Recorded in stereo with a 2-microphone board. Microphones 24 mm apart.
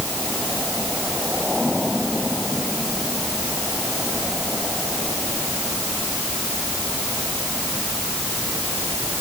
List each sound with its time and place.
Only background noise.